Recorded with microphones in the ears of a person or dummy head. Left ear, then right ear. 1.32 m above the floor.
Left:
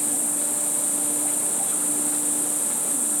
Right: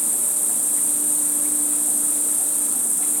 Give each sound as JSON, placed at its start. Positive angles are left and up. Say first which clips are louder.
{"t": 0.0, "sound": "an insect", "louder": "right 2 dB", "side_deg": -80, "distance_m": 3.0}